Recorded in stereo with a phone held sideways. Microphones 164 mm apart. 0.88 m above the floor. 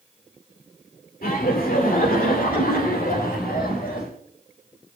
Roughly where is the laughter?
Left.